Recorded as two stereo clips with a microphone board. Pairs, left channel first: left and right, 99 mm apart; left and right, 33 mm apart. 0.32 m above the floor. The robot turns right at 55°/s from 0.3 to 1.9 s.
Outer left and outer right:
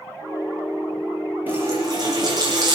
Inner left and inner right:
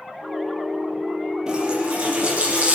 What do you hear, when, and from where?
1.5 s a running tap: 15° right (ahead or behind), 5.5 m; by 2.8 s 40° right (ahead or behind), 5.5 m